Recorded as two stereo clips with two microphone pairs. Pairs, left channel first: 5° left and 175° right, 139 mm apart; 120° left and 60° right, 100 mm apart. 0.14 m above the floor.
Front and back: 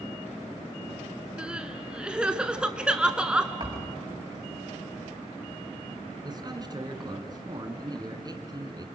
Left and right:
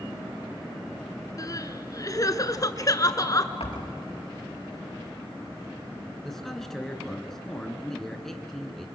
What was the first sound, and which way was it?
Crying, 110° left.